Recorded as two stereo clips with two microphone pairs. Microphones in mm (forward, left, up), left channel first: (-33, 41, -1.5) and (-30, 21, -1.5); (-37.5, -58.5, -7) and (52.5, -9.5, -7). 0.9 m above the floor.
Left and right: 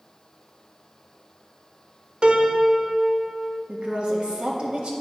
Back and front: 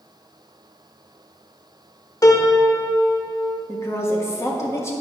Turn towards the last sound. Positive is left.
turn(degrees=-90)